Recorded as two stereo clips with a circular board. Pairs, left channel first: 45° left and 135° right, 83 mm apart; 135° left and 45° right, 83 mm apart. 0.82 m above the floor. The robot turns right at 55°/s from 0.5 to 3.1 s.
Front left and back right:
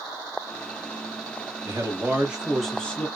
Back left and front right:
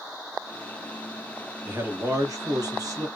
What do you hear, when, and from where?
1.6 s a man speaking: 95° right, 1.4 m; by 3.1 s 20° right, 1.4 m